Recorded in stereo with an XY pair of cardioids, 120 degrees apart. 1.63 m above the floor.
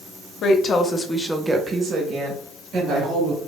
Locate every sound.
0.4 s a woman speaking: 60° left, 0.7 m; by 3.4 s 55° right, 1.7 m